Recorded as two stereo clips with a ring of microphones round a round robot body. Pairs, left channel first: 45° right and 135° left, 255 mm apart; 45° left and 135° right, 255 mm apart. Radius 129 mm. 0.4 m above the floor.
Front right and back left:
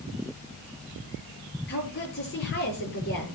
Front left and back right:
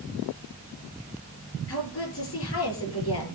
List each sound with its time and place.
1.7 s a woman speaking: 5° left, 6.5 m